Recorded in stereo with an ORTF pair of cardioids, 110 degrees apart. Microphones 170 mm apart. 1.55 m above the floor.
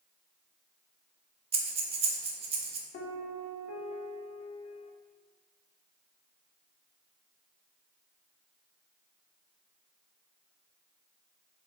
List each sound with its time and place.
1.5 s breathing: 35° right, 0.7 m
2.9 s a piano: 60° left, 0.7 m